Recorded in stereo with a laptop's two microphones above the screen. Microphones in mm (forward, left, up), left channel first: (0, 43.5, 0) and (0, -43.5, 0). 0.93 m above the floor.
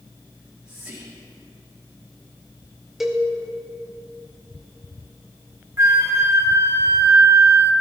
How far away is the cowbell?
About 1.3 m.